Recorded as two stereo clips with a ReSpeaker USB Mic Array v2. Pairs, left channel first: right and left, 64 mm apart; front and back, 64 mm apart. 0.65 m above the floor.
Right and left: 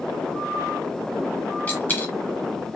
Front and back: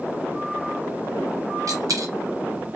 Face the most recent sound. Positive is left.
turn(degrees=-155)